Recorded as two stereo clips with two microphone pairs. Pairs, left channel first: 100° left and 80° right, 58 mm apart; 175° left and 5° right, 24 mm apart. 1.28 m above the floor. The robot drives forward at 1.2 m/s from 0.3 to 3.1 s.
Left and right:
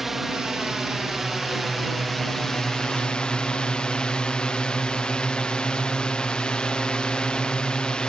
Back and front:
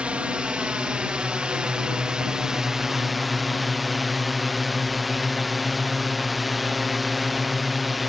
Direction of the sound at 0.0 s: 10° left.